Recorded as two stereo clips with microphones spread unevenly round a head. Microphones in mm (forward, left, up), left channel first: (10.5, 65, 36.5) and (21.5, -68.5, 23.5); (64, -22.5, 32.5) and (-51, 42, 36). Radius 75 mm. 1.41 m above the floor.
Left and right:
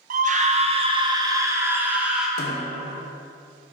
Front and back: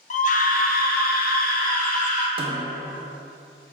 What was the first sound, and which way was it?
A scream, 65° right.